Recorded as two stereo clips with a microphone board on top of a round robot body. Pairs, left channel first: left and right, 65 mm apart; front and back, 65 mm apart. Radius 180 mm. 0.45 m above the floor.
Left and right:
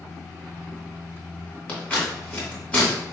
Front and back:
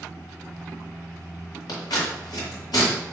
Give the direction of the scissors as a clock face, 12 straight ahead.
11 o'clock.